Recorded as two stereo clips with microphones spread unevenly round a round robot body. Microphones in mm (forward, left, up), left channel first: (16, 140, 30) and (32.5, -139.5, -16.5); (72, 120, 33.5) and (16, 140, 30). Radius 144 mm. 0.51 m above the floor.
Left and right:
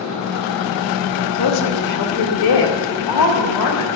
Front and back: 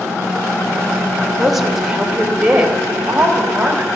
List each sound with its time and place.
1.4 s a woman speaking: 75° left, 2.0 m; by 3.9 s 90° left, 3.5 m